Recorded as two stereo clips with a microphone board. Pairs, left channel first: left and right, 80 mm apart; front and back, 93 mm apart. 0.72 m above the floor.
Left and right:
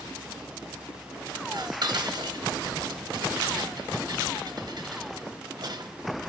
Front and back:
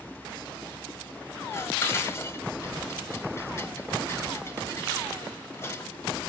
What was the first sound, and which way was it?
Dishes clattering, 60° right.